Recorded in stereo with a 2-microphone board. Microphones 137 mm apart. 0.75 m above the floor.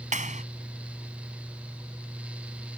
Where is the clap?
75° right (ahead or behind).